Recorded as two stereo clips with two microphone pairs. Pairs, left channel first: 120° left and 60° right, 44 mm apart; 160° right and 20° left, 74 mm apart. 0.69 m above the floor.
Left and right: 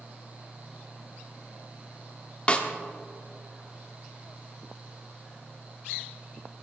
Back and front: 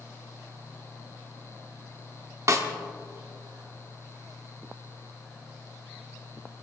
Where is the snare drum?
60° left, 1.4 m.